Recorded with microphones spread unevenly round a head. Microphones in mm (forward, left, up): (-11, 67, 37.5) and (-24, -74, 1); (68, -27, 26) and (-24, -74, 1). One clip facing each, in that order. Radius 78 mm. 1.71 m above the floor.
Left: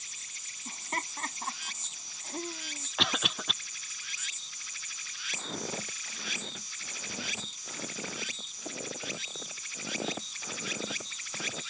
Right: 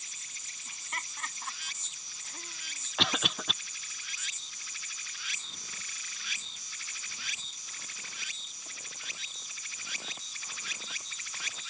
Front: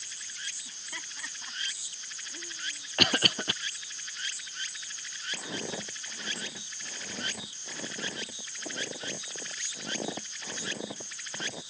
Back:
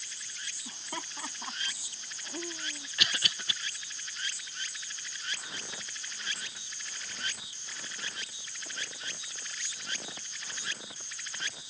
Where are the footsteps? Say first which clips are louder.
Left 16 dB, front 8 dB; 40° left; by 11.6 s 55° left.